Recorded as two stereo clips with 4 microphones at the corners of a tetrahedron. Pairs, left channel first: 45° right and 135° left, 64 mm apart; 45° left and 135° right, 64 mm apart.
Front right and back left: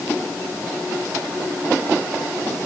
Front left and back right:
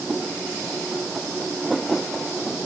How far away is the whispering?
I don't hear whispering.